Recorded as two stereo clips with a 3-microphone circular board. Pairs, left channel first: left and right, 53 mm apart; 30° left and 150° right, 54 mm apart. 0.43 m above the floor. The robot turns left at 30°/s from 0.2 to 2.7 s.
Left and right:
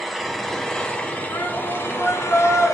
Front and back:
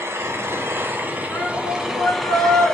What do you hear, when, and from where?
0.0 s an engine running: straight behind, 1.5 m; by 2.7 s 105° left, 1.5 m
1.3 s a shout: 85° left, 5.5 m; by 2.7 s 40° left, 5.5 m